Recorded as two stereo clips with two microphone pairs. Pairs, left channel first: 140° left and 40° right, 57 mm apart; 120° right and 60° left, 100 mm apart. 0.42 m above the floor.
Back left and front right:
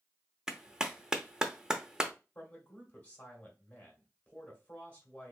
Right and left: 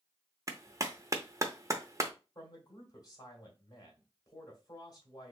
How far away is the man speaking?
About 1.9 m.